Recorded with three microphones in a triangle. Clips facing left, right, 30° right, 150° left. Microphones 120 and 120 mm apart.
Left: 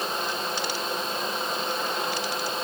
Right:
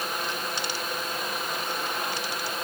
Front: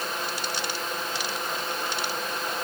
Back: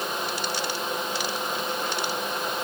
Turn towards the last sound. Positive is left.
No sound to turn to.